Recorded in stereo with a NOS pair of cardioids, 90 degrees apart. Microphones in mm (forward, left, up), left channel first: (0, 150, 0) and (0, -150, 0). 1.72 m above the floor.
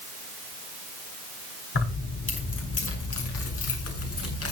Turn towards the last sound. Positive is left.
turn(degrees=50)